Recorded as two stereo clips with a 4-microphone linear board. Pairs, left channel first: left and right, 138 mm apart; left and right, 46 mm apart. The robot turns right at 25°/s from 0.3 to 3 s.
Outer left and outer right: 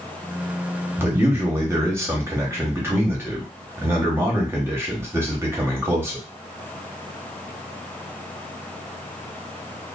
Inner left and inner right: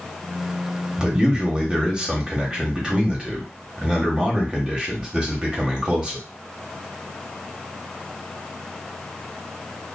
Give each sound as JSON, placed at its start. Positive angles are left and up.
{"t": 1.0, "sound": "a man speaking", "side_deg": -15, "distance_m": 1.0}